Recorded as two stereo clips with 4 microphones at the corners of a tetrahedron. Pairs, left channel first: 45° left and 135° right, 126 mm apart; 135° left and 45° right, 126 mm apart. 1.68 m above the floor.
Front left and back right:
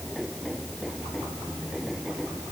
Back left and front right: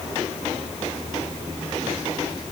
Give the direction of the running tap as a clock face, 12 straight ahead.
No running tap in this recording.